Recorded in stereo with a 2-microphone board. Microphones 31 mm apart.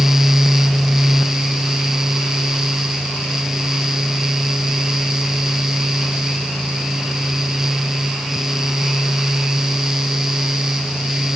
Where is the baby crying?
No baby crying in this recording.